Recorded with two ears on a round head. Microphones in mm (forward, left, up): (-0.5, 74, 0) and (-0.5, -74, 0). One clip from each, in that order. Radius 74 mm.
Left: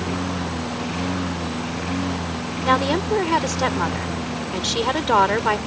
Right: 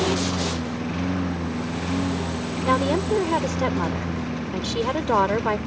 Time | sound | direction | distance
0.0 | a lawn mower | 25° left (ahead or behind) | ?
2.6 | a woman speaking | 50° left (ahead or behind) | ?